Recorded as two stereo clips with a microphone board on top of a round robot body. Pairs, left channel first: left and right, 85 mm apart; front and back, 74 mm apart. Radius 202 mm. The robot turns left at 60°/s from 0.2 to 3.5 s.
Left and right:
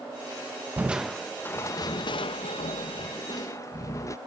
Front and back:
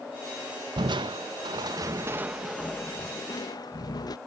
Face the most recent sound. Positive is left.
turn(degrees=35)